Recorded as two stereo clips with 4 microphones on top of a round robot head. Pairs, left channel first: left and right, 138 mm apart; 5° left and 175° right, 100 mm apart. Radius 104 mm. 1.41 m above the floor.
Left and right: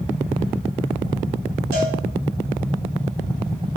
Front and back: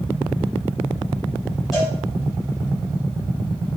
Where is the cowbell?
85° right, 5 m.